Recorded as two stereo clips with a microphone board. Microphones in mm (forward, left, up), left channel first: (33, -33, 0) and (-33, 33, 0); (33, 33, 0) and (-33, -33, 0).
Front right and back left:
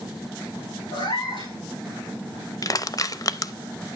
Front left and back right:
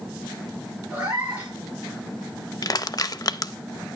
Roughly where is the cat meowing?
Ahead right.